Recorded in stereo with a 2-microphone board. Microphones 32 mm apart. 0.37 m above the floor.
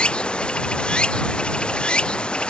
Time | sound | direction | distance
0.0 | running water | 30° left (ahead or behind) | ?